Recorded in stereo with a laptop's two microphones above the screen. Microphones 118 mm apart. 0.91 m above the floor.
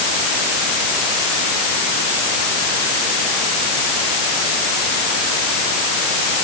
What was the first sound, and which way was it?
Only background noise.